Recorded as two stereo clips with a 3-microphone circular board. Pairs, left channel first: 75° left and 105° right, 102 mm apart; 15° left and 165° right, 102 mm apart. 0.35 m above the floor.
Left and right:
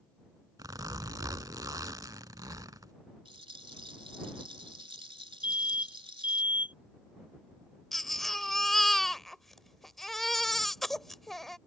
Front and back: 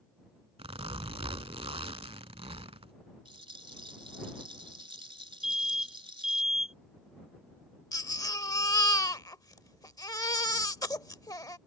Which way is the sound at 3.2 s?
135° right.